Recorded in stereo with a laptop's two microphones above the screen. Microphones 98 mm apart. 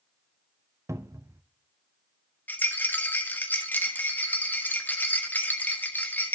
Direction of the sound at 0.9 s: 30° right (ahead or behind).